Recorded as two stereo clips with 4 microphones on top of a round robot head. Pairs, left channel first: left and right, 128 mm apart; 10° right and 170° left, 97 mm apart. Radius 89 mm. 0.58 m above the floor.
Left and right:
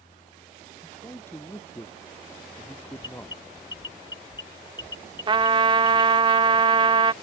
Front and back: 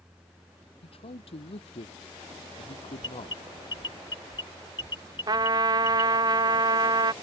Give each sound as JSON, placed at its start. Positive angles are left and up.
{"t": 0.8, "sound": "a man speaking", "azimuth_deg": 15}
{"t": 3.0, "sound": "an alarm", "azimuth_deg": 30}
{"t": 5.3, "sound": "a trumpet", "azimuth_deg": -140}